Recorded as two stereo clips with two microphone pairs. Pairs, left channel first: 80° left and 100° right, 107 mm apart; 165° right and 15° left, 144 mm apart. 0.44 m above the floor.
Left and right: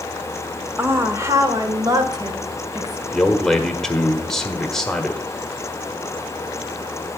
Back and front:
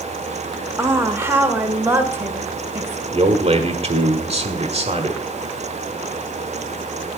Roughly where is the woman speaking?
Ahead right.